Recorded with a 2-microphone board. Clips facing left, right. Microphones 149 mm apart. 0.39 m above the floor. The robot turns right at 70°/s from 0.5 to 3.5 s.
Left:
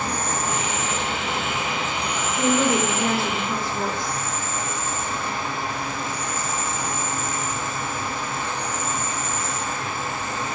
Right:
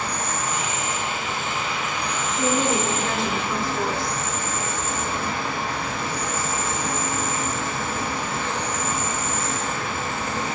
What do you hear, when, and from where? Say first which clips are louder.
0.0 s an insect: left 2 dB; 50° left, 0.7 m; by 10.6 s 100° right, 0.7 m
2.4 s a woman speaking: left 2 dB; 20° left (ahead or behind), 0.8 m; by 4.2 s 5° right (ahead or behind), 0.8 m